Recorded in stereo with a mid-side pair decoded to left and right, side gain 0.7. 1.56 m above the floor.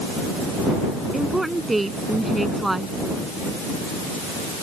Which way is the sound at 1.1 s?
10° right.